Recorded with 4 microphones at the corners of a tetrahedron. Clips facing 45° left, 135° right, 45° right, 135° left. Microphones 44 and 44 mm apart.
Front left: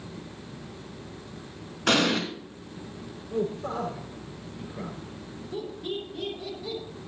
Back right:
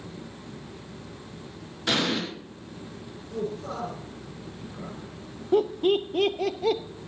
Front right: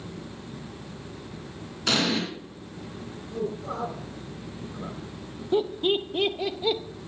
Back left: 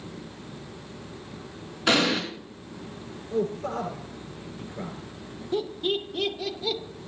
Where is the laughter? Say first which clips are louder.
Back right 12 dB, front right 4 dB; 110° right, 0.9 m.